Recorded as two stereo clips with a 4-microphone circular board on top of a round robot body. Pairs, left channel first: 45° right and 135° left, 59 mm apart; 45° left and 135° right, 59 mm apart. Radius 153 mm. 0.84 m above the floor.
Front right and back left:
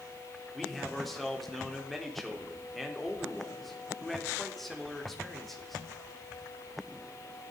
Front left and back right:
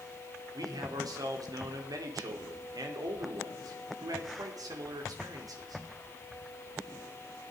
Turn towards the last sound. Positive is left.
turn(degrees=-130)